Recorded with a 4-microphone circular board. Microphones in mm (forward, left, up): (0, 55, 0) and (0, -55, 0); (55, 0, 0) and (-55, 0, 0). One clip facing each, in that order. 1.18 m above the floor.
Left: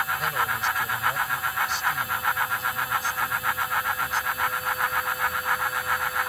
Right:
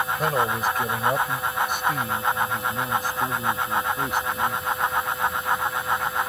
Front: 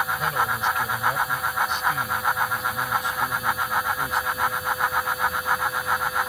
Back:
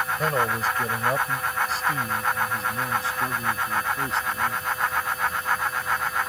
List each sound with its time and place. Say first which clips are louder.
0.2 s a man speaking: right 4 dB, even; 135° right; by 4.6 s 120° right